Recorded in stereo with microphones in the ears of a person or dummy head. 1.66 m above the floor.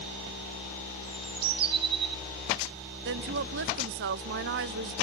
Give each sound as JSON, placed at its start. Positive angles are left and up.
{"t": 1.0, "sound": "a bird", "side_deg": -30, "distance_m": 0.9}
{"t": 3.0, "sound": "a woman speaking", "side_deg": -60, "distance_m": 0.6}